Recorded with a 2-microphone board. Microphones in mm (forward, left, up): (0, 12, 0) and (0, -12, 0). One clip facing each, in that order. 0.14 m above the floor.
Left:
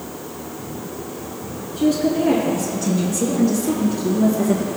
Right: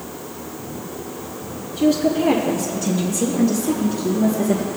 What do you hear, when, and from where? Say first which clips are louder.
1.8 s a woman speaking: right 1 dB; centre (ahead or behind), 2.0 m; by 4.7 s 25° left (ahead or behind), 3.5 m